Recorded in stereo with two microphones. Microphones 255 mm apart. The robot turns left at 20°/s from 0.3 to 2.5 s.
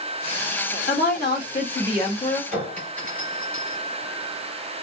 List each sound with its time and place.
0.9 s a woman speaking: 60° left, 2.5 m; by 2.4 s 25° left, 2.5 m
2.5 s a clink: 5° left (ahead or behind), 4.5 m